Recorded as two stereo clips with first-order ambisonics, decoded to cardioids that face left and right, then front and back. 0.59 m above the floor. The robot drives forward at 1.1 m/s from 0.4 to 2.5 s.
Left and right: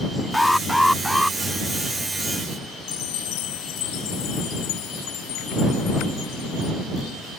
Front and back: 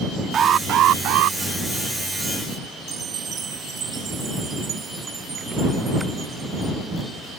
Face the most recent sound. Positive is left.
turn(degrees=115)